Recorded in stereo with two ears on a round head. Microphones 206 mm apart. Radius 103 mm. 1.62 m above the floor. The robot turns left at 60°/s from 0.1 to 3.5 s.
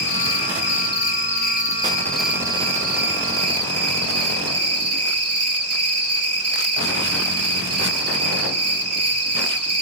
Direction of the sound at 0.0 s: 125° left.